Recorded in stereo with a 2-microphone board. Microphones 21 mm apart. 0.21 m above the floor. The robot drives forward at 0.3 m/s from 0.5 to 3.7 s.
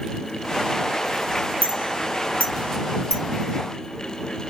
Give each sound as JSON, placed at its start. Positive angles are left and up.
{"t": 1.6, "sound": "a clink", "side_deg": 70, "distance_m": 3.0}